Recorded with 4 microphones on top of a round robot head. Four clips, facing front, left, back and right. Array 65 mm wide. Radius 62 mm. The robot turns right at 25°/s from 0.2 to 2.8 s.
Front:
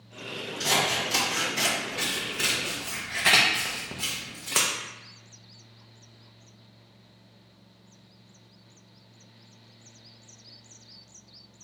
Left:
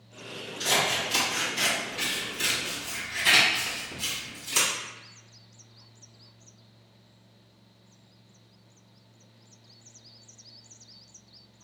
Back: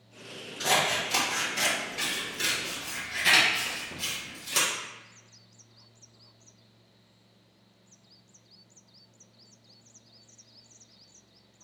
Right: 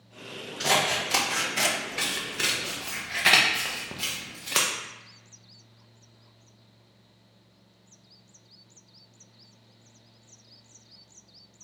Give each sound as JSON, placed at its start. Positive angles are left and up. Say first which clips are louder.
{"t": 0.6, "sound": "scissors", "louder": "right 2 dB, even", "azimuth_deg": -115, "distance_m": 0.7}